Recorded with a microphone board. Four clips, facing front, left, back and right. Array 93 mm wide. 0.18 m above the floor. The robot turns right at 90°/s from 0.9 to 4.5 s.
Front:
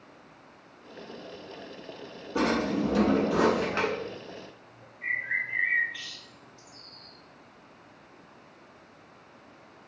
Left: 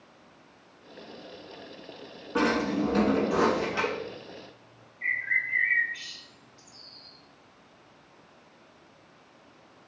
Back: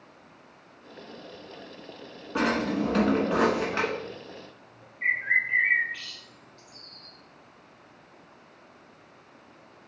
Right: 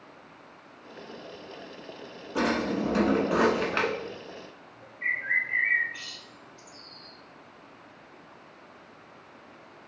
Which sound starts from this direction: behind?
A bird, at 5.0 s.